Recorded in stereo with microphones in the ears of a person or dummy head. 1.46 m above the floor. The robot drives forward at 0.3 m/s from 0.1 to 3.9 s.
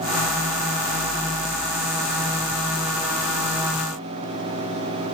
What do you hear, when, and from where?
Only background noise.